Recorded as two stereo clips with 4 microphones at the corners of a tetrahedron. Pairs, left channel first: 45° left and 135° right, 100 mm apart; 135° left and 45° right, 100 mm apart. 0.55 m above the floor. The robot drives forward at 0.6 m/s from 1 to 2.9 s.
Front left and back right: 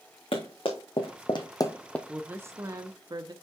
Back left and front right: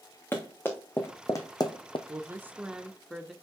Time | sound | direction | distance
0.3 | running footsteps | 70° left | 2.5 m
2.1 | a woman speaking | 60° right | 0.7 m